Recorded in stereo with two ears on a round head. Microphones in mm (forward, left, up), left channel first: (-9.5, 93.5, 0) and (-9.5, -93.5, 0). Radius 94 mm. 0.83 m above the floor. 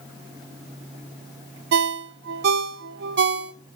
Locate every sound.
1.7 s a ringtone: 50° right (ahead or behind), 0.6 m